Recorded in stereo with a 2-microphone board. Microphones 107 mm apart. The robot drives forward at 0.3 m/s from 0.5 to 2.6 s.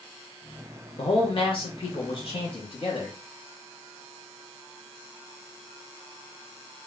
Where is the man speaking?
55° left (ahead or behind), 0.8 m; by 3.2 s 50° left (ahead or behind), 0.8 m.